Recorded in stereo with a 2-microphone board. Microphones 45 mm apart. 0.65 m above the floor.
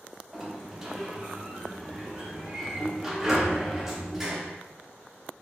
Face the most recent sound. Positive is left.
turn(degrees=-10)  # may be behind; listen again after turning